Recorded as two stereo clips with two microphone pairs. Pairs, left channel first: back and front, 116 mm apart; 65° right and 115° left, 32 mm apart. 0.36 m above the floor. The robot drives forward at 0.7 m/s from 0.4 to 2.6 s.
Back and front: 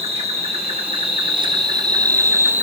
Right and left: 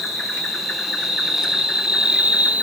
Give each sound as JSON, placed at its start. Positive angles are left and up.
{"t": 0.0, "sound": "an insect", "azimuth_deg": 30, "distance_m": 2.0}